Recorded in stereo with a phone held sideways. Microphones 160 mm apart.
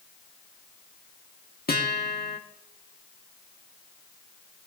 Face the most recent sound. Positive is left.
turn(degrees=75)  # may be behind; listen again after turning